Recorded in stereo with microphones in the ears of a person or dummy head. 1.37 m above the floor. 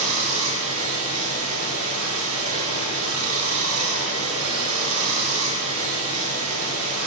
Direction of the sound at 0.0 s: 80° right.